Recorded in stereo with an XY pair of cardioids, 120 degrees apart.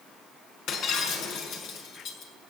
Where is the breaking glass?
70° left, 5 m.